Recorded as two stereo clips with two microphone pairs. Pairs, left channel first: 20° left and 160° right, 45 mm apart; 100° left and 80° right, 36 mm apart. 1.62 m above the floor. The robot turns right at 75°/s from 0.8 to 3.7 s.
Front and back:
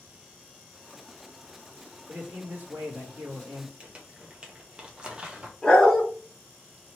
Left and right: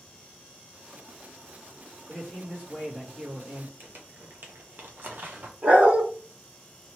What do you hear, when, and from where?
2.1 s a man speaking: 160° left, 1.5 m; by 3.7 s 80° right, 1.5 m
3.8 s crumpling: 95° right, 0.7 m
5.6 s a dog barking: 50° right, 1.5 m